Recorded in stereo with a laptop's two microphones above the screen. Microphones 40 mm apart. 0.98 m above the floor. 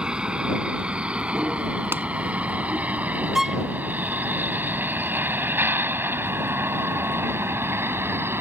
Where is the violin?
15° right (ahead or behind).